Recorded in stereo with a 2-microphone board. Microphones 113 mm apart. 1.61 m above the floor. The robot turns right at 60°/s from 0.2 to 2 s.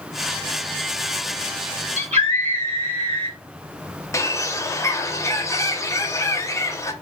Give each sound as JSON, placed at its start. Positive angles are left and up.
{"t": 2.0, "sound": "a scream", "side_deg": -90, "distance_m": 3.5}
{"t": 4.1, "sound": "a bird", "side_deg": 25, "distance_m": 0.6}